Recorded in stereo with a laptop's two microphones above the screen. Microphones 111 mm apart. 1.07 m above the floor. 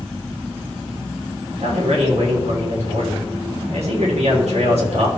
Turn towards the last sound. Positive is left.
turn(degrees=-75)  # may be behind; listen again after turning